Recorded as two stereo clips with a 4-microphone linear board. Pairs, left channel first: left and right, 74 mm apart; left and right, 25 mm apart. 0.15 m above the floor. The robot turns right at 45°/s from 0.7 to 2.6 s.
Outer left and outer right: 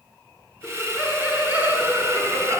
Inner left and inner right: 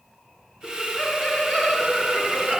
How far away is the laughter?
About 2.5 m.